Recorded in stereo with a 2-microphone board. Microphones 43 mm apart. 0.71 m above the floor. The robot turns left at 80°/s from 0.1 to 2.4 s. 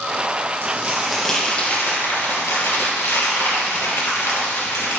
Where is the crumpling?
125° right, 3 m; by 5.0 s 90° left, 3 m.